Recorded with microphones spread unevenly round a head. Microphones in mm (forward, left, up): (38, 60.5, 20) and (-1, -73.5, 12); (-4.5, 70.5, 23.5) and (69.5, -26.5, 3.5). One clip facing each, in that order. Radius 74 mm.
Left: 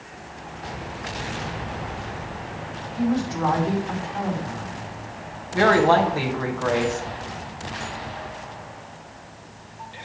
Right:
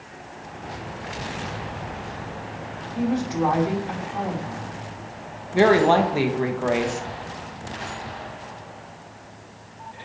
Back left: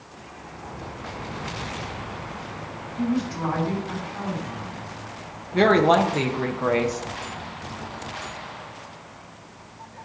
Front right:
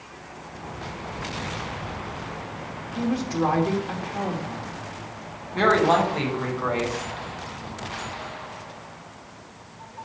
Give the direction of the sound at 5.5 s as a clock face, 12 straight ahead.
6 o'clock.